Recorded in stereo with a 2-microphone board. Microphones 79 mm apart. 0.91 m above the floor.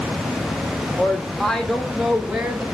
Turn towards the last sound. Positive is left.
turn(degrees=-10)  # may be behind; listen again after turning